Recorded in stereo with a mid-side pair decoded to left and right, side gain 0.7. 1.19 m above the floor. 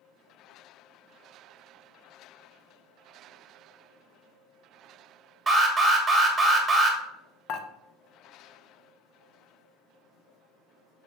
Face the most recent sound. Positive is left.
turn(degrees=55)